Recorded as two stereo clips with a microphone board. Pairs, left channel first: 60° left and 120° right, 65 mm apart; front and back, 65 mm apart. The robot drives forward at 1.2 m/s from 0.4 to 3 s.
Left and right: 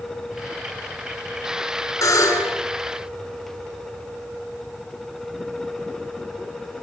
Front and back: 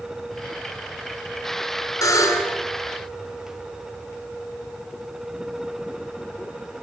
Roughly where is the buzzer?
Ahead.